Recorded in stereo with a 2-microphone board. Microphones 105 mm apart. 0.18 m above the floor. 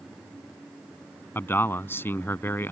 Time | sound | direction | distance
1.4 | a man speaking | 20° left (ahead or behind) | ?